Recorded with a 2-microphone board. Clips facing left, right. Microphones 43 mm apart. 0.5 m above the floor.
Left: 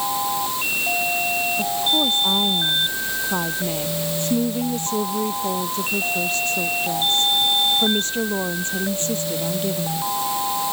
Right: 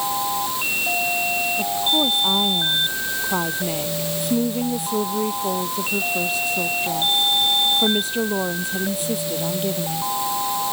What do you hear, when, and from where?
1.6 s a woman speaking: 5° right (ahead or behind)